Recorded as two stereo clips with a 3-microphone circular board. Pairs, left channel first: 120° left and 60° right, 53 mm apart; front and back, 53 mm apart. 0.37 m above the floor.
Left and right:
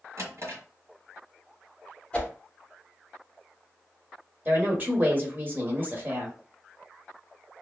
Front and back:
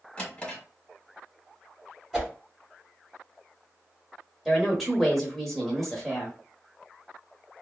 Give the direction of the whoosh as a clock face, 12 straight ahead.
9 o'clock.